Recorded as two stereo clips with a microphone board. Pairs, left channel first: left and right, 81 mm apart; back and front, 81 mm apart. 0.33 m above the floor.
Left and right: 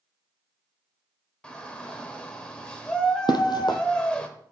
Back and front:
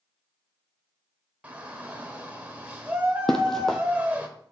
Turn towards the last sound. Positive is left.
turn(degrees=95)